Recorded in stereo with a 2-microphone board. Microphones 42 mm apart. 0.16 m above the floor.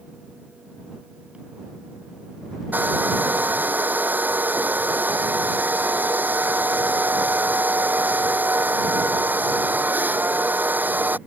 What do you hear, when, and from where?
2.7 s a hair dryer: 50° right (ahead or behind)